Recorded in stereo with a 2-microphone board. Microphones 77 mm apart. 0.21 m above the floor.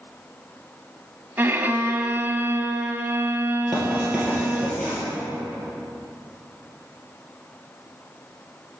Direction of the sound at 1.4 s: 30° right (ahead or behind).